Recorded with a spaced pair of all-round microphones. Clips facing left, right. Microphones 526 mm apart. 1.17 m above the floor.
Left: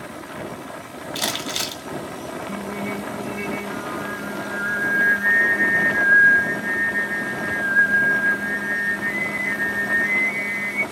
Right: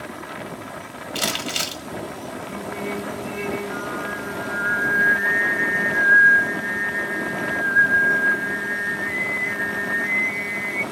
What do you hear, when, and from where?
1.1 s crumpling: 50° right (ahead or behind), 1.0 m
2.5 s singing: 30° left (ahead or behind), 3 m